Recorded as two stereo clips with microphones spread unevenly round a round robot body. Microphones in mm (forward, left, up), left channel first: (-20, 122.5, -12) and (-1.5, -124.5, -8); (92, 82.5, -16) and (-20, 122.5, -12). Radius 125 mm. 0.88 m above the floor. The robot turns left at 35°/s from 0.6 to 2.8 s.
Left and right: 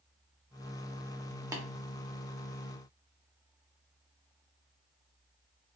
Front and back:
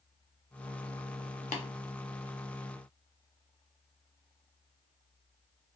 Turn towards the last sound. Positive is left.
turn(degrees=-50)